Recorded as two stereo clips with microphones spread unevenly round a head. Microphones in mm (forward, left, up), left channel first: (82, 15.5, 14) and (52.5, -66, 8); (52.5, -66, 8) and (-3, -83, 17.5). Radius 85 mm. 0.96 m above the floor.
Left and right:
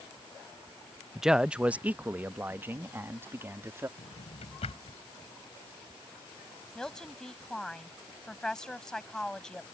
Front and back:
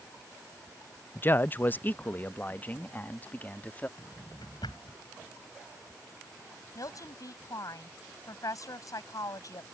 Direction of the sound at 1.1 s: 25° right.